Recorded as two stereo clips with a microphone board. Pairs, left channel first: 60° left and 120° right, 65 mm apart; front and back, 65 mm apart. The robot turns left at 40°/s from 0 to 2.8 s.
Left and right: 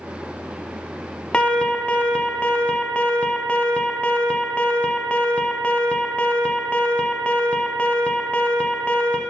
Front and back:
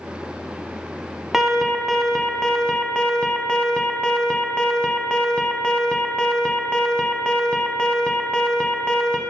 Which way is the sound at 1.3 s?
105° left.